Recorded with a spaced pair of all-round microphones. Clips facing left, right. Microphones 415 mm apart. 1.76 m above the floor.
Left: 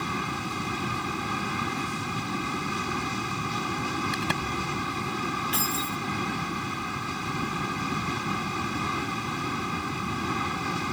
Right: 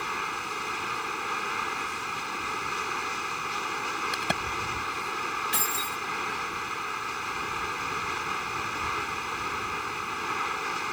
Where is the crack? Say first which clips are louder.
Left 3 dB; 5° left (ahead or behind).